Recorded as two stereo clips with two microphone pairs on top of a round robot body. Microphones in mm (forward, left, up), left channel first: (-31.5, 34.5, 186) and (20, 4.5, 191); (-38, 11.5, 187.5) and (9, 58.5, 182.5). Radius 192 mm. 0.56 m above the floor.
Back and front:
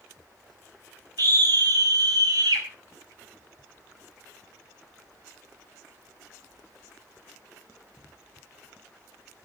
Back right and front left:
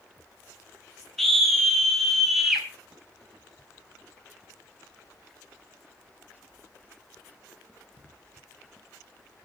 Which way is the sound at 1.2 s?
50° right.